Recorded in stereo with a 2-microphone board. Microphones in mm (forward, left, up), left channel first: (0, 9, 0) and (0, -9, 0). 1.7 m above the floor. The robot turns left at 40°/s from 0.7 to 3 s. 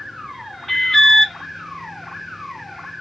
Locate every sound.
0.7 s an alarm: 15° left (ahead or behind), 0.5 m; by 1.4 s 25° left (ahead or behind), 0.5 m